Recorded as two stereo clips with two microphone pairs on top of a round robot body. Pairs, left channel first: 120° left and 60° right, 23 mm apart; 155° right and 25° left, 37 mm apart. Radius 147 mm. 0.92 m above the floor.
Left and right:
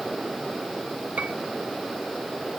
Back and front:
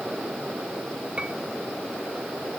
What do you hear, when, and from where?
1.2 s a piano: 40° right